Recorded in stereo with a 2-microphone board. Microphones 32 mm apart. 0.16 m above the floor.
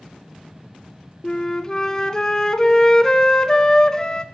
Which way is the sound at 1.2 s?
25° left (ahead or behind).